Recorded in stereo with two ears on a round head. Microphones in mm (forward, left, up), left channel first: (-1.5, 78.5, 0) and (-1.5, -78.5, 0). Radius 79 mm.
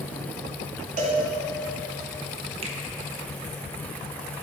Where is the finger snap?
35° right (ahead or behind), 0.8 m.